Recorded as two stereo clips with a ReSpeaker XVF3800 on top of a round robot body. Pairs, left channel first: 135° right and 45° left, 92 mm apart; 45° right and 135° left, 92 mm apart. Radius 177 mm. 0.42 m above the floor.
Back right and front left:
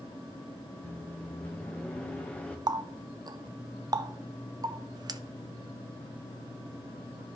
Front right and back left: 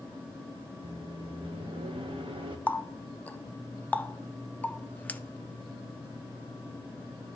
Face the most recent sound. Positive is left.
turn(degrees=25)